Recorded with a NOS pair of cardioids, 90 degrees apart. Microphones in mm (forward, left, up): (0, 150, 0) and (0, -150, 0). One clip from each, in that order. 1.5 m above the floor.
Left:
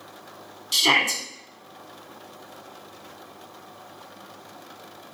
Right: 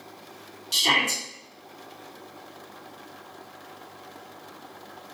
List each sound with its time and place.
0.7 s a shout: 15° left, 1.3 m